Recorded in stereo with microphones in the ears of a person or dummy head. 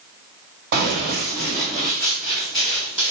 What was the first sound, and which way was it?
Running footsteps, 45° right (ahead or behind).